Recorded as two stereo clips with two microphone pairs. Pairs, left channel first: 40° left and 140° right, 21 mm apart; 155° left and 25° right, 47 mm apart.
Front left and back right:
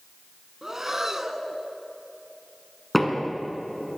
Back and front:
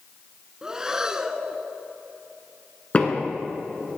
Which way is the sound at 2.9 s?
115° left.